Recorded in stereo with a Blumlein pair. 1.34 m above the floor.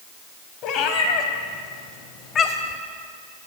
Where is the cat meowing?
35° left, 3.5 m; by 2.8 s 20° left, 2.5 m.